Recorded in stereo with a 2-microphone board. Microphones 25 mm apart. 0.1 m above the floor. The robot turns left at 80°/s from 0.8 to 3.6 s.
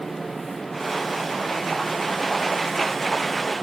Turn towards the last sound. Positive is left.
No sound to turn to.